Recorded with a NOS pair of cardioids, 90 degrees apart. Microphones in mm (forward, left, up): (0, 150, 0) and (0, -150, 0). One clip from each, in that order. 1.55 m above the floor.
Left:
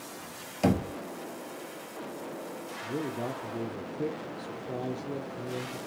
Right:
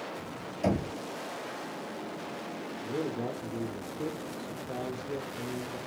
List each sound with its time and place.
0.6 s knocking: 65° left, 0.9 m
2.8 s a man speaking: 5° left, 0.6 m